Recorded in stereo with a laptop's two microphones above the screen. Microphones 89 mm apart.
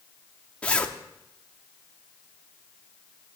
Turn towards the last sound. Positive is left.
turn(degrees=15)  # may be behind; listen again after turning